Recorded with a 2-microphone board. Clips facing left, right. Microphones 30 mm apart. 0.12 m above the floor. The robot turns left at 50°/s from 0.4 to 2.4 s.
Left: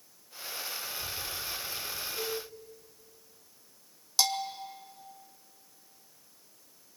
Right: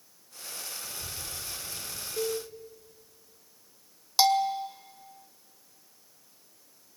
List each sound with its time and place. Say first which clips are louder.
0.8 s a child speaking: left 3 dB; 20° right (ahead or behind), 6.5 m; by 2.1 s 80° right, 6.5 m
2.2 s a cowbell: right 6 dB; 80° right, 7.5 m; by 2.4 s 75° right (ahead or behind), 7.5 m
4.2 s a bell: right 7 dB; 20° right (ahead or behind), 1.6 m